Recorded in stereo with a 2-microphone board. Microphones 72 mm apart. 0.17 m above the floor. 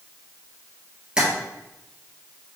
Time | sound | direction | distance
1.2 | tapping | 15° right (ahead or behind) | 1.3 m